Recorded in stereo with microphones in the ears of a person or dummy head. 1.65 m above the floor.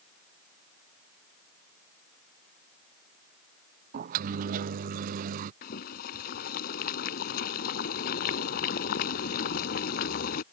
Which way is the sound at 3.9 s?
45° right (ahead or behind).